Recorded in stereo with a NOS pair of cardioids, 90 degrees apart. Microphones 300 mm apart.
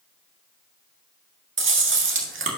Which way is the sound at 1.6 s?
40° right.